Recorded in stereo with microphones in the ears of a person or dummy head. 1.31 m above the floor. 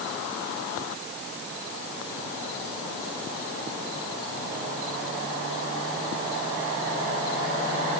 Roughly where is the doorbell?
No doorbell in this recording.